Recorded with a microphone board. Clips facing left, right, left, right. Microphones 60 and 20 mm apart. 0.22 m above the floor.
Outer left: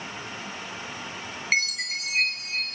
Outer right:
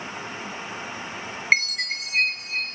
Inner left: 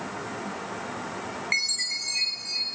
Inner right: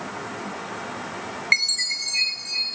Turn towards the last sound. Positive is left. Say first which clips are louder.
# outer right 4 dB, inner right 6 dB
turn(degrees=-45)  # may be behind; listen again after turning